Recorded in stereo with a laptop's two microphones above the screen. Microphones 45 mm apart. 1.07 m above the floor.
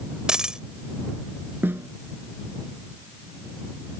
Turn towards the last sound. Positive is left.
turn(degrees=-55)  # may be behind; listen again after turning